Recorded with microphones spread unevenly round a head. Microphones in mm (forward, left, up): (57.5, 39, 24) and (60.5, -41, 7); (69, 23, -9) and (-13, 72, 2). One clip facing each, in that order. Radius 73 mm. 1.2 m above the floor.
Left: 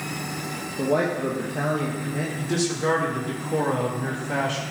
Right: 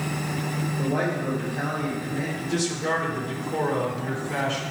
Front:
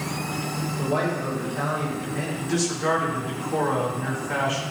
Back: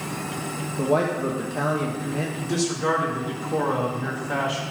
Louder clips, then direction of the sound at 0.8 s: Left 5 dB, back 4 dB; 115° left.